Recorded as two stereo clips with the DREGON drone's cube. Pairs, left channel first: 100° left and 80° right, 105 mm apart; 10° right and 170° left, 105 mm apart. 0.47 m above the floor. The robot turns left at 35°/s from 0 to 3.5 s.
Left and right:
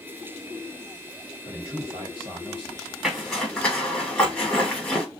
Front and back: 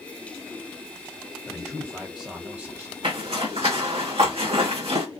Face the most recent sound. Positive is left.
turn(degrees=180)